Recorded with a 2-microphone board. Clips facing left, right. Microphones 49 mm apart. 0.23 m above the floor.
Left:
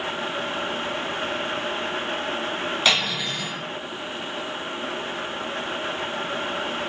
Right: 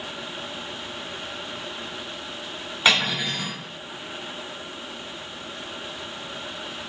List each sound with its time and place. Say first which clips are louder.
2.9 s cutlery clinking: right 3 dB; 15° right (ahead or behind), 1.3 m